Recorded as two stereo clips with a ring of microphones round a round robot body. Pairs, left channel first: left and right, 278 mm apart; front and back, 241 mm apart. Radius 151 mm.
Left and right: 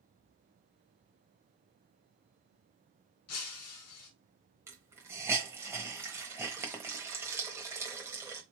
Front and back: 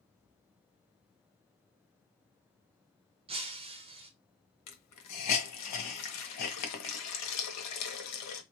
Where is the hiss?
10° right, 1.0 m.